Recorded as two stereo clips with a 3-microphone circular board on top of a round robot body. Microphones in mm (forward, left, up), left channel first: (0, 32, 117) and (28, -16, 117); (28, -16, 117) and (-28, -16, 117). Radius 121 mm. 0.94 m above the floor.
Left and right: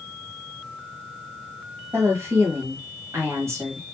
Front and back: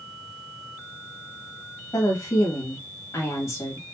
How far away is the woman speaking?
About 2 m.